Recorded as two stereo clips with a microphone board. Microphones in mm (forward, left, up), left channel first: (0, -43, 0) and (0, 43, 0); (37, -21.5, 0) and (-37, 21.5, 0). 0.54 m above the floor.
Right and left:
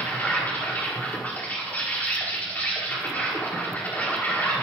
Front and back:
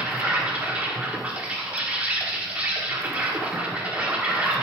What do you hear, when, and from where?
0.0 s an insect: 145° right, 1.3 m